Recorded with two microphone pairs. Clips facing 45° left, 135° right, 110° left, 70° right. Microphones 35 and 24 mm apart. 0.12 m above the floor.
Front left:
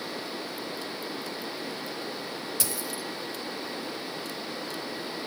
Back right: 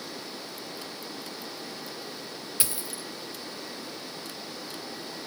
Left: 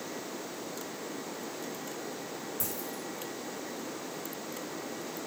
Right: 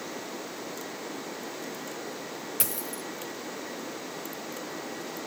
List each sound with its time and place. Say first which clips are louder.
2.6 s a dropped coin: front left 2 dB, right 3 dB; 70° right, 1.0 m